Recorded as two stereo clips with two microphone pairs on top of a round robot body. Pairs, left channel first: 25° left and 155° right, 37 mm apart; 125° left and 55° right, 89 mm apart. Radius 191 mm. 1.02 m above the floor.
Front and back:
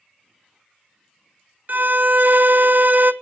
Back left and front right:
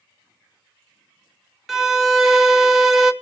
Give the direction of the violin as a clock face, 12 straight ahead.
5 o'clock.